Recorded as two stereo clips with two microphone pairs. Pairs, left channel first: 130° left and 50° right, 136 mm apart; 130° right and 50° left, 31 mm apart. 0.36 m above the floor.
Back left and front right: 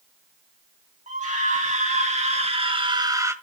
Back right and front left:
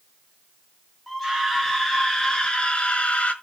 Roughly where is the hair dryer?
No hair dryer in this recording.